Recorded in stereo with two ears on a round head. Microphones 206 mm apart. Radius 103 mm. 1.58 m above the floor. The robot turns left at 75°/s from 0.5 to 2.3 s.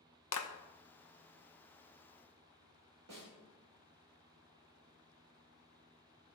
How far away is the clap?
About 1.1 m.